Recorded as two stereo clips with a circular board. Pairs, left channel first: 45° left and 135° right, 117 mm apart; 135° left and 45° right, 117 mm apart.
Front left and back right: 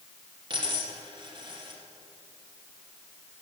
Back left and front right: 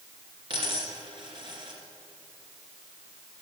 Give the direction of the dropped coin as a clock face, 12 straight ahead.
3 o'clock.